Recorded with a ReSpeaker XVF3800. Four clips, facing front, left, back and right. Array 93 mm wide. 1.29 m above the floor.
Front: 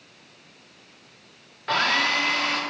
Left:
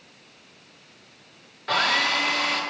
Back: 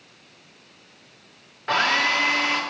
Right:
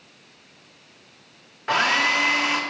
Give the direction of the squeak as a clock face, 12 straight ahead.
No squeak in this recording.